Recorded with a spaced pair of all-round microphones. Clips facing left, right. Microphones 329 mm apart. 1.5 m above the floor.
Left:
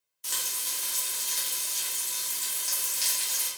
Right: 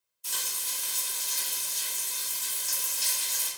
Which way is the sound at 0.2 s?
80° left.